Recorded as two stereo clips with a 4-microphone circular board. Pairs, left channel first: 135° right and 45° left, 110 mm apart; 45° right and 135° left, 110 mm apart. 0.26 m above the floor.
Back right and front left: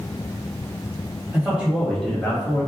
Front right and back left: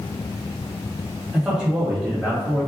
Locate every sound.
1.3 s a man speaking: 70° left, 1.4 m; by 2.7 s 150° right, 1.4 m